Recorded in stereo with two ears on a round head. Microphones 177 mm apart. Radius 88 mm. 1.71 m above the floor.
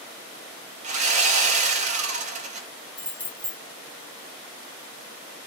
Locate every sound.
0.8 s sawing: 35° right (ahead or behind), 1.0 m
3.0 s keys jangling: 5° left (ahead or behind), 1.0 m